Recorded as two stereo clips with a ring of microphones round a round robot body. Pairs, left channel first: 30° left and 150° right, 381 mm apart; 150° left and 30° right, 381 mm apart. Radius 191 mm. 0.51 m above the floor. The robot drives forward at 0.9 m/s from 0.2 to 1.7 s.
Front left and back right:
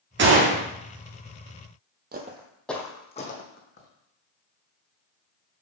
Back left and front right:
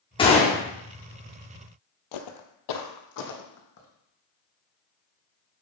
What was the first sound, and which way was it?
A gunshot, 150° right.